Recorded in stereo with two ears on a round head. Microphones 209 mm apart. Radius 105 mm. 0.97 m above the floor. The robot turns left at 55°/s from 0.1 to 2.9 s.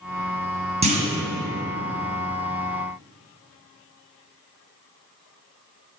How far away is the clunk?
About 1.4 m.